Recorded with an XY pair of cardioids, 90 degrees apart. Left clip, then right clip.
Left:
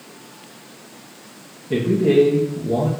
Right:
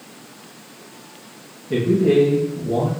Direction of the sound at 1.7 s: 15° left.